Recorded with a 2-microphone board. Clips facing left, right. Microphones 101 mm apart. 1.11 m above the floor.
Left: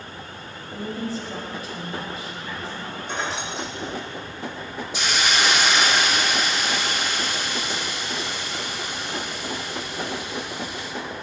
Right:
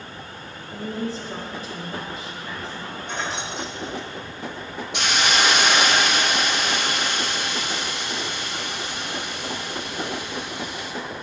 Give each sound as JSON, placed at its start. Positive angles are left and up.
{"t": 0.7, "sound": "a woman speaking", "side_deg": -35, "distance_m": 4.0}
{"t": 3.1, "sound": "keys jangling", "side_deg": 5, "distance_m": 2.0}
{"t": 4.9, "sound": "a hiss", "side_deg": -70, "distance_m": 1.5}